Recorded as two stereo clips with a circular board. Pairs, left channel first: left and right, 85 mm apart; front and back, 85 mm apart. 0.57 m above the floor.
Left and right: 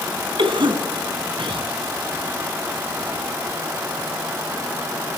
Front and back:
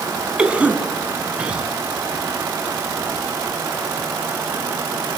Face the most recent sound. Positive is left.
turn(degrees=-105)